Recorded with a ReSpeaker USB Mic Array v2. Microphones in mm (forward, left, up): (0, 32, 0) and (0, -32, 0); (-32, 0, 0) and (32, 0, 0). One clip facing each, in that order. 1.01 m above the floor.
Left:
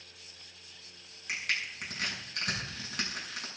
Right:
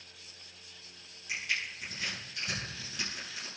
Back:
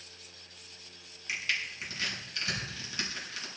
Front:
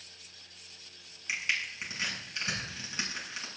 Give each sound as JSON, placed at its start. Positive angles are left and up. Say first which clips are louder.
{"t": 1.3, "sound": "crushing", "louder": "left 1 dB, front 1 dB", "azimuth_deg": 70, "distance_m": 6.5}